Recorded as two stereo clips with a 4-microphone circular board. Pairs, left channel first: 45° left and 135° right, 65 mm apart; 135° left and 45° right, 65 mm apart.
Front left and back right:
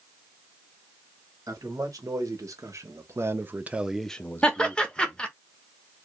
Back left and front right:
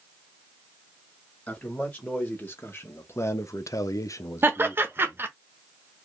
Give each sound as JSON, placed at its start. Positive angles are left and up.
{"t": 1.5, "sound": "a man speaking", "azimuth_deg": -160, "distance_m": 1.7}
{"t": 4.4, "sound": "laughter", "azimuth_deg": -25, "distance_m": 0.7}